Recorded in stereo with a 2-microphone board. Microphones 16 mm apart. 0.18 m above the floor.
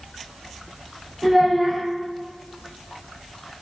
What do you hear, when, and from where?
1.2 s a child speaking: 15° right (ahead or behind), 0.7 m